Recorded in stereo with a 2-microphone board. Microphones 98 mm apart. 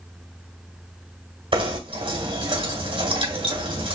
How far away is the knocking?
About 2 m.